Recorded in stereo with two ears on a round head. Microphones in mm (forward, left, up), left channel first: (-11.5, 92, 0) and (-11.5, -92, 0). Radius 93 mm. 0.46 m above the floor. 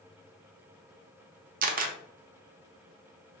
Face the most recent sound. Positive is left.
turn(degrees=-40)  # may be behind; listen again after turning